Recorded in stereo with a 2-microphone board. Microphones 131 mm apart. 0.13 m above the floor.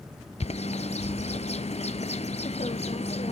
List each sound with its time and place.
0.4 s a bird: 55° left (ahead or behind), 0.9 m